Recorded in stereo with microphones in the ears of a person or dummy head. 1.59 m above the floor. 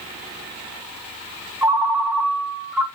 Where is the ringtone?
5° right (ahead or behind), 0.6 m.